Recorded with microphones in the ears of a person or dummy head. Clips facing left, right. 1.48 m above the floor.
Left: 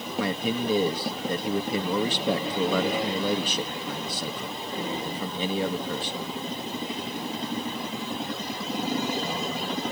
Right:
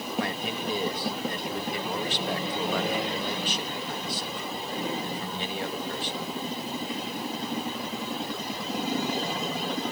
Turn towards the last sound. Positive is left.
turn(degrees=80)